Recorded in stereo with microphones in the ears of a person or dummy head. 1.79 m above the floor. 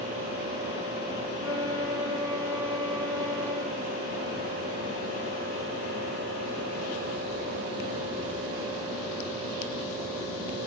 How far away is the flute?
About 1.3 m.